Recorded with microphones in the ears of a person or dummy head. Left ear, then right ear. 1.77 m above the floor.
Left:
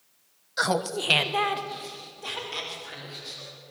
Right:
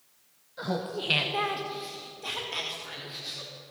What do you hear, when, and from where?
0.6 s laughter: 55° left (ahead or behind), 1.0 m; by 3.5 s centre (ahead or behind), 4.5 m